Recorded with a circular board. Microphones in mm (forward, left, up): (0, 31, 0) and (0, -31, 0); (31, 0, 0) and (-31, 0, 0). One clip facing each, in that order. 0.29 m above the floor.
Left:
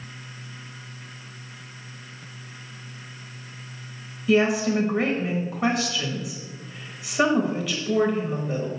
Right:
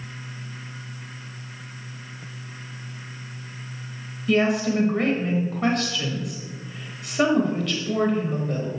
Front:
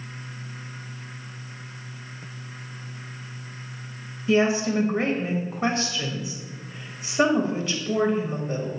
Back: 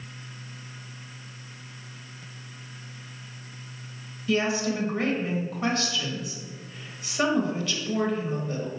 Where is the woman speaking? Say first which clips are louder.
Left 1 dB, front 4 dB; 15° left, 1.5 m.